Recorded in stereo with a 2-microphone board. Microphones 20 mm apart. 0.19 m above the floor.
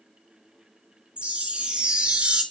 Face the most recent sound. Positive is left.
turn(degrees=-65)  # may be behind; listen again after turning